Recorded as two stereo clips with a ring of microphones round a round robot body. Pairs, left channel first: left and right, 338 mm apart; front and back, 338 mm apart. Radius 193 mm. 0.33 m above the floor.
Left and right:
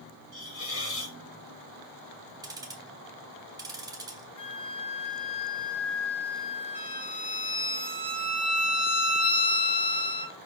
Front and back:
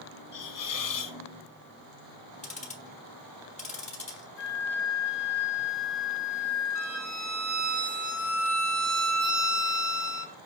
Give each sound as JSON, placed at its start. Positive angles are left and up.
{"t": 0.3, "sound": "a hiss", "azimuth_deg": 35, "distance_m": 1.6}
{"t": 2.4, "sound": "ticking", "azimuth_deg": -30, "distance_m": 1.4}
{"t": 4.4, "sound": "a flute", "azimuth_deg": 50, "distance_m": 1.7}
{"t": 6.8, "sound": "a violin", "azimuth_deg": 160, "distance_m": 4.0}